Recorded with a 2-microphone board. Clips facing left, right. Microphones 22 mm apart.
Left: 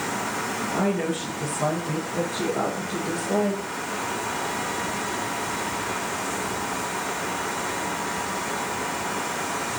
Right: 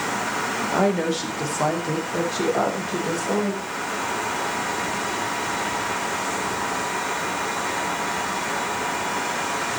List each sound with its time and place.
0.7 s a woman speaking: 70° right (ahead or behind), 5 m; by 3.7 s 65° right (ahead or behind), 9 m